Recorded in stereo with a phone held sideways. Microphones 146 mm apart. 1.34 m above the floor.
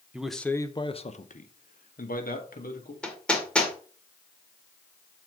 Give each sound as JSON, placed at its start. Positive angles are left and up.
{"t": 0.1, "sound": "a man speaking", "side_deg": -10, "distance_m": 0.7}
{"t": 3.0, "sound": "hammering", "side_deg": 5, "distance_m": 1.6}